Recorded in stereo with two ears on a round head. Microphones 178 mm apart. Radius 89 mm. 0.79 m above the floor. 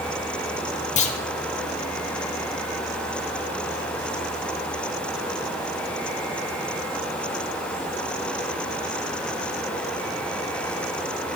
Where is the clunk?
35° left (ahead or behind), 0.9 m.